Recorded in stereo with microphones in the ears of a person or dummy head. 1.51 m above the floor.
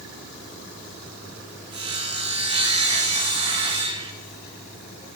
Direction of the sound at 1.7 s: 30° right (ahead or behind).